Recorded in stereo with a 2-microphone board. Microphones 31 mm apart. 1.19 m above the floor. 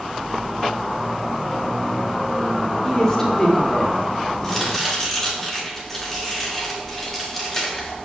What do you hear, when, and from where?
2.8 s a woman speaking: 20° left (ahead or behind), 3 m
4.4 s chopping: 15° left (ahead or behind), 3 m